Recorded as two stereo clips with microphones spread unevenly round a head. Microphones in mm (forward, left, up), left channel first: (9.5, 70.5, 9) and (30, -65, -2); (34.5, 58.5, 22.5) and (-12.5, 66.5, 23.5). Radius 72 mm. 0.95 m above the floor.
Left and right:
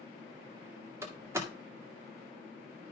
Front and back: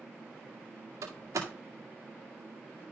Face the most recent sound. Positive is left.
turn(degrees=-155)